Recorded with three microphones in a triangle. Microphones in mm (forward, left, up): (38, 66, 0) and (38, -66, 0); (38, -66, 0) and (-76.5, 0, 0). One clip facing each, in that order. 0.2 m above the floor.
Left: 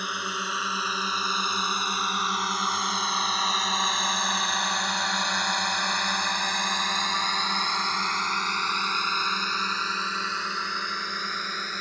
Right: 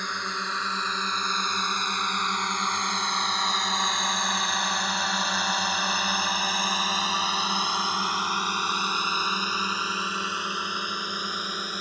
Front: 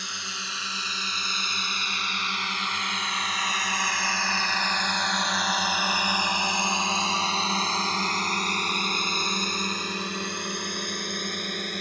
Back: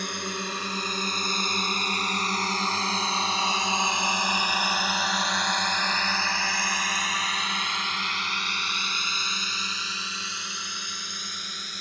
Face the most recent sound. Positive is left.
turn(degrees=-15)